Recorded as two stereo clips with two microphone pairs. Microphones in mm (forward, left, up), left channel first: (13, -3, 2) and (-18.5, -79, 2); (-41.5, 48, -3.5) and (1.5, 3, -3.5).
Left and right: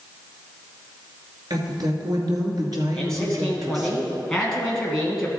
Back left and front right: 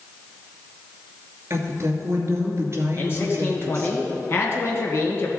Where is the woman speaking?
85° right, 2.5 m.